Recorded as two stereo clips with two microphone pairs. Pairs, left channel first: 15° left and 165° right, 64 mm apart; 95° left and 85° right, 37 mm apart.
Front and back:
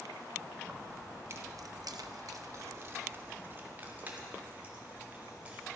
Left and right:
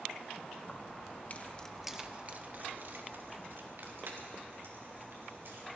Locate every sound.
0.6 s keys jangling: 120° left, 1.3 m; by 5.7 s 95° right, 4 m